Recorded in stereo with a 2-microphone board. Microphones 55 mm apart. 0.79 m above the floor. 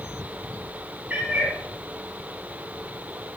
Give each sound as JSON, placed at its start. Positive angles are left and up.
{"t": 1.1, "sound": "a cat meowing", "side_deg": -25, "distance_m": 5.0}